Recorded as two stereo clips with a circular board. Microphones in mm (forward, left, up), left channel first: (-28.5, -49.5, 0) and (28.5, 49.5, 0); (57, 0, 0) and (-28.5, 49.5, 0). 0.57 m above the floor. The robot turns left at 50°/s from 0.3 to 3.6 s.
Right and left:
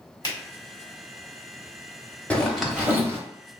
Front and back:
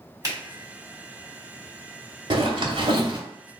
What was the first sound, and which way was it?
A finger snap, 160° right.